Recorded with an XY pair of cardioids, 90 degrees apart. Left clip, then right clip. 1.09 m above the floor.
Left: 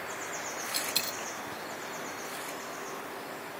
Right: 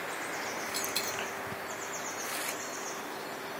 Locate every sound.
0.7 s a dropped coin: 45° left, 1.9 m